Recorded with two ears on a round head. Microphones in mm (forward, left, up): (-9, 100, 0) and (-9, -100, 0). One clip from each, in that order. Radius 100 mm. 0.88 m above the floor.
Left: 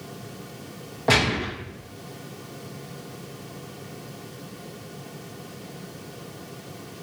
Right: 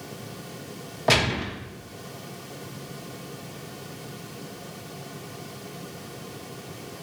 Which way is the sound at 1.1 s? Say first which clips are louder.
Left 1 dB; 15° right (ahead or behind).